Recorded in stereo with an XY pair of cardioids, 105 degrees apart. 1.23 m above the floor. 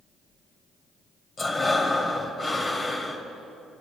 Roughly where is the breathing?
Ahead left.